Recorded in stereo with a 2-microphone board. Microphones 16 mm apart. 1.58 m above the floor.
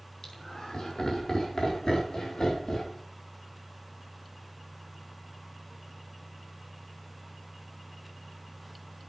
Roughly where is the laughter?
Left.